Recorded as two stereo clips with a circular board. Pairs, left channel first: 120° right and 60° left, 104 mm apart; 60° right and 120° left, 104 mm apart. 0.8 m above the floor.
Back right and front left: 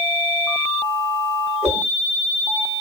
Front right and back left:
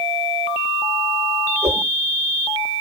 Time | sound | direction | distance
1.6 | a whoosh | 125° left | 9 m